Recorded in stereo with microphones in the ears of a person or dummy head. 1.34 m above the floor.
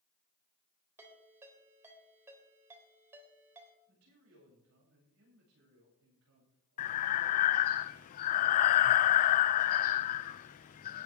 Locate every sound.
1.0 s a ringtone: 15° right (ahead or behind), 3.5 m
3.9 s a man speaking: 90° right, 8 m
6.8 s breathing: 45° left (ahead or behind), 0.5 m